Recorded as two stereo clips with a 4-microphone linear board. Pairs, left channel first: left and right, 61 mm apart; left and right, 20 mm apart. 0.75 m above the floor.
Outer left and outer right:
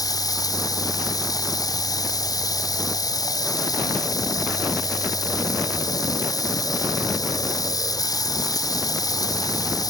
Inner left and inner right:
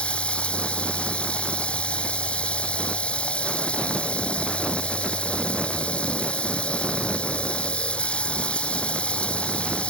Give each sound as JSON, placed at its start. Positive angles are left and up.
{"t": 0.0, "sound": "running water", "side_deg": 85}